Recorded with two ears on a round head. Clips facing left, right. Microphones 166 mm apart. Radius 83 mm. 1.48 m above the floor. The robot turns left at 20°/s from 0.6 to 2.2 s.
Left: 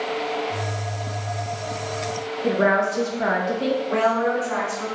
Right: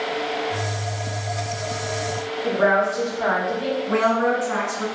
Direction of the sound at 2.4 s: 35° left (ahead or behind).